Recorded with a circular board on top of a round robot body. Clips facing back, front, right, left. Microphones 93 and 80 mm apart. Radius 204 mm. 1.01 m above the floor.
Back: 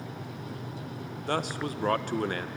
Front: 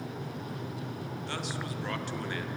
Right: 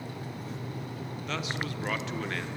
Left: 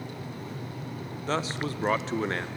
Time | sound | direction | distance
1.3 | a man speaking | 145° left | 0.9 m